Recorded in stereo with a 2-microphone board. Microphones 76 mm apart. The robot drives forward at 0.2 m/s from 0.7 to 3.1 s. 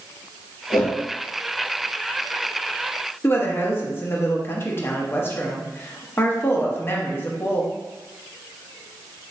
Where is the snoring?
No snoring in this recording.